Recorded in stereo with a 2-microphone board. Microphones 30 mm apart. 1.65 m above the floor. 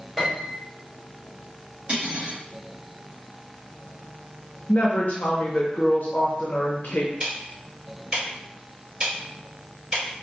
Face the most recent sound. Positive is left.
turn(degrees=-25)  # may be behind; listen again after turning